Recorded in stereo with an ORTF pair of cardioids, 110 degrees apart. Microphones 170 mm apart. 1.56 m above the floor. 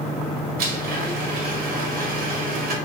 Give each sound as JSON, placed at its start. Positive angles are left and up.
{"t": 0.6, "sound": "a blender", "azimuth_deg": -60, "distance_m": 1.3}